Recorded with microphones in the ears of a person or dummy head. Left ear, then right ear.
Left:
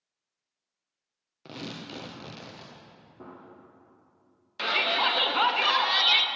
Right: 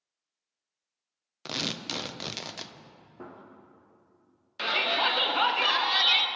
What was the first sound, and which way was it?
Tearing paper, 55° right (ahead or behind).